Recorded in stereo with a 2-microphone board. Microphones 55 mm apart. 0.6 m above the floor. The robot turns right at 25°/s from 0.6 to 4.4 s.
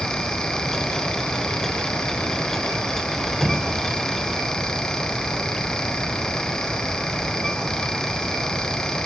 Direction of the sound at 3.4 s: 10° right (ahead or behind).